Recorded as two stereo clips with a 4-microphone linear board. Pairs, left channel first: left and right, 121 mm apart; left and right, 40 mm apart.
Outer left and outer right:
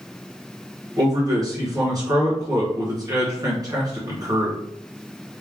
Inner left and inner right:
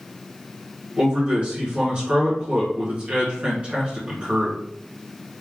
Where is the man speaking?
30° right (ahead or behind), 1.7 m.